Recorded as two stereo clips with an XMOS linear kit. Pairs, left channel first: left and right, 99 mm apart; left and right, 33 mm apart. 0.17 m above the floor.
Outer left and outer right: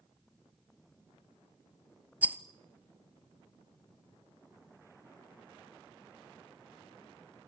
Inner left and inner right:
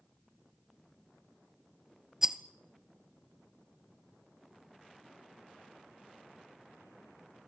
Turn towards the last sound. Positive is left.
turn(degrees=-15)  # may be behind; listen again after turning